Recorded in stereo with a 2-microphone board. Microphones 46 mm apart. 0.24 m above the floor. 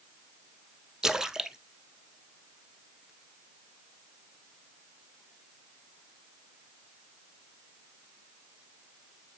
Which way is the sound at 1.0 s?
10° right (ahead or behind).